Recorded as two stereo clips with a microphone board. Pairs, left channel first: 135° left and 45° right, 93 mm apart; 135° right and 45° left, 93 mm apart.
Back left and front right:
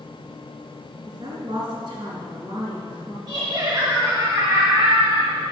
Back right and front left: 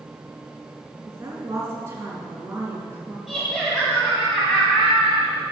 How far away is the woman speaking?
About 3.5 m.